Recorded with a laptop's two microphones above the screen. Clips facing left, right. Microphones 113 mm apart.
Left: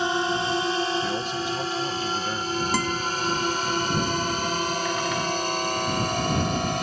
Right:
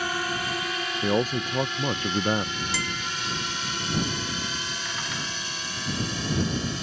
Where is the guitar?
45° left (ahead or behind).